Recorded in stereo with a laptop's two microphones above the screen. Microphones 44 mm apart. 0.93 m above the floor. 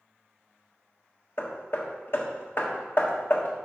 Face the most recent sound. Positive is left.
turn(degrees=50)  # may be behind; listen again after turning